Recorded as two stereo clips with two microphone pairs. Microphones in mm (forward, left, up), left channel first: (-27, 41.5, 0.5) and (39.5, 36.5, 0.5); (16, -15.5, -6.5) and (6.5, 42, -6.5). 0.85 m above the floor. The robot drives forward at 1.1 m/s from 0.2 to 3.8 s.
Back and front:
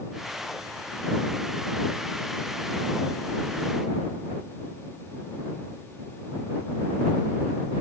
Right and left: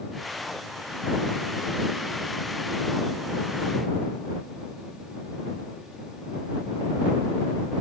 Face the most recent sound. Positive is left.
No sound to turn to.